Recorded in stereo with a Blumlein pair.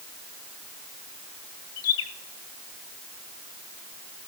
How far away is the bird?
About 0.8 m.